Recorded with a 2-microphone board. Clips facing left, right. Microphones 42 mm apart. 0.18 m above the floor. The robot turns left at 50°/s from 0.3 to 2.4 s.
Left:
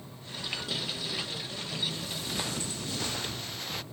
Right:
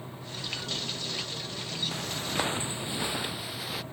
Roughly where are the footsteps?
Right.